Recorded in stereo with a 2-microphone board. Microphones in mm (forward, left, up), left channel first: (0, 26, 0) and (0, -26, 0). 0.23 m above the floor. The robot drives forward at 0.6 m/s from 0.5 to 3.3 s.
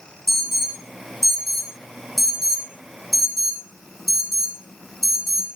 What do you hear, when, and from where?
0.3 s an alarm: centre (ahead or behind), 7 m